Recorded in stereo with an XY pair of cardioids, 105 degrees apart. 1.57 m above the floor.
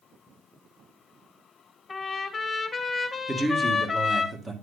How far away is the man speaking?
About 1.8 m.